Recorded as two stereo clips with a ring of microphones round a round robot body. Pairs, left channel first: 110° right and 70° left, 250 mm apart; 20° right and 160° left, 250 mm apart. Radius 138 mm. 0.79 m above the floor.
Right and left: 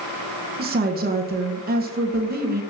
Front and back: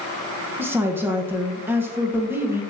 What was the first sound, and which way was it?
A woman speaking, 80° left.